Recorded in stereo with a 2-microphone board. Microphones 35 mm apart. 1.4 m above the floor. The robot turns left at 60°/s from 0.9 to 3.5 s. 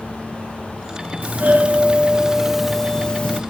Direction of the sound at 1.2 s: 95° right.